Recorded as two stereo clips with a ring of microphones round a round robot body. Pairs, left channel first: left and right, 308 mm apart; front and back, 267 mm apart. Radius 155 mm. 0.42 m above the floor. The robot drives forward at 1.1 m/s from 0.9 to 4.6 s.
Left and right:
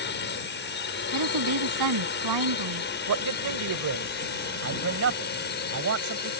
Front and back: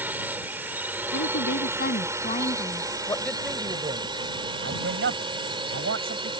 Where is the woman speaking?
55° right; by 2.9 s 75° right.